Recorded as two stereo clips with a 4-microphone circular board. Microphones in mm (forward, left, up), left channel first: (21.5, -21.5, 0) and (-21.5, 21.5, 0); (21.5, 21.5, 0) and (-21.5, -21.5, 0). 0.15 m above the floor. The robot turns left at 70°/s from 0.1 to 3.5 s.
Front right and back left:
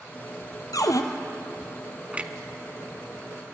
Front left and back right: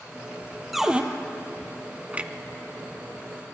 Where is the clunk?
175° right, 0.8 m; by 3.5 s 85° left, 0.8 m.